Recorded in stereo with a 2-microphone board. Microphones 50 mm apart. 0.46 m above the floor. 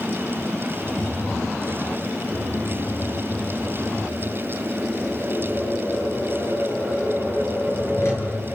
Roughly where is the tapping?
Left.